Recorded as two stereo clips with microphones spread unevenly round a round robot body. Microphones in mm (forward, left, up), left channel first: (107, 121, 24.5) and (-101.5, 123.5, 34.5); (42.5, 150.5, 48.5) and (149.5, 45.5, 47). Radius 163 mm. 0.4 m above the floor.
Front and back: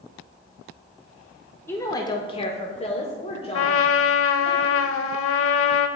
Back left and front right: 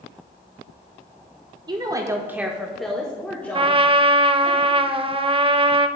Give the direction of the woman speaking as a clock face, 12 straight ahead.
2 o'clock.